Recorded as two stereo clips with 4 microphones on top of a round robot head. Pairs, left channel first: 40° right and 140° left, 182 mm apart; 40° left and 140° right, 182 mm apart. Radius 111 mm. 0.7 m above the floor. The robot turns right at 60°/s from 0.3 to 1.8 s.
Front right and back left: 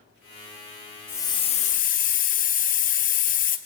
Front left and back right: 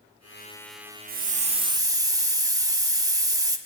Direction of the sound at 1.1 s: 115° right.